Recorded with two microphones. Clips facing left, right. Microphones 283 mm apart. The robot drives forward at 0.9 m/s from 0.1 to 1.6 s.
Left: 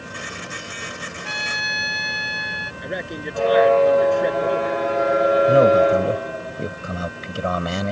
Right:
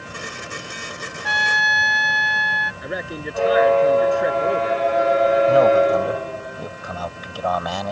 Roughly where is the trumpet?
Right.